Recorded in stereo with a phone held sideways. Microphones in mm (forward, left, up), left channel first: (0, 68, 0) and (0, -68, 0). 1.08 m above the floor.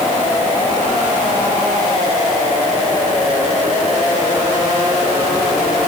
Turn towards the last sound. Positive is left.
No sound to turn to.